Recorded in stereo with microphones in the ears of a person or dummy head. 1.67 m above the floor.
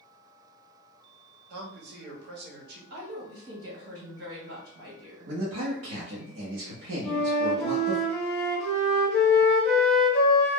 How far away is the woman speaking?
About 1.4 m.